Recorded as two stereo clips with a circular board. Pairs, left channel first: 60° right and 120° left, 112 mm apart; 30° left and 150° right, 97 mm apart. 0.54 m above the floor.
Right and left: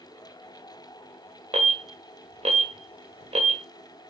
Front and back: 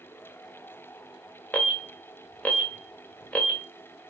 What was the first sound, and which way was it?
An alarm, 100° left.